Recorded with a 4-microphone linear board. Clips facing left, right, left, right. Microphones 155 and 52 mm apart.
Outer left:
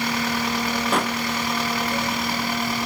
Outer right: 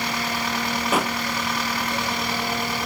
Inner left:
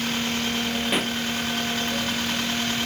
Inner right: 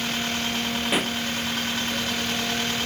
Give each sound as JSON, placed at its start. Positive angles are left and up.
{"t": 0.9, "sound": "a pop", "side_deg": -5}